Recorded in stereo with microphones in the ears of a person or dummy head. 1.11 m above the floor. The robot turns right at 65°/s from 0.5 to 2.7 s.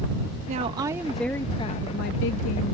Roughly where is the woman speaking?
Ahead right.